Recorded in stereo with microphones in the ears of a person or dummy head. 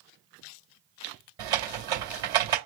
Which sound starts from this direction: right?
Typing on a keyboard, at 1.4 s.